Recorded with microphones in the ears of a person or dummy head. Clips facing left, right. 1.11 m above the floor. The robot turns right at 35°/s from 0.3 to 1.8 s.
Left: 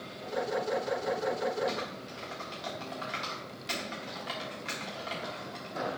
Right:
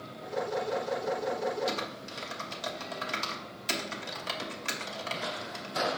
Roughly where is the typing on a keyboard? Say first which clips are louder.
Even; right.